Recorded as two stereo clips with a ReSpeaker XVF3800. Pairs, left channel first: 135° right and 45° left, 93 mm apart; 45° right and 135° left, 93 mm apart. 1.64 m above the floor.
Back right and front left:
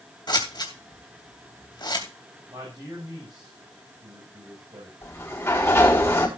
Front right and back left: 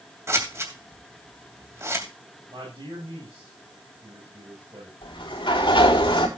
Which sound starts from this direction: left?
A man speaking, at 2.5 s.